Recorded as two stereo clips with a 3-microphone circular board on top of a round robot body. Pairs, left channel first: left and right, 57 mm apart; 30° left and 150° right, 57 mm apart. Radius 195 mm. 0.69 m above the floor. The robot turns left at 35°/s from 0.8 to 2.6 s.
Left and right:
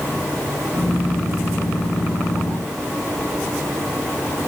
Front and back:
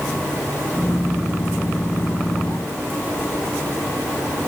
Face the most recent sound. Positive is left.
No sound to turn to.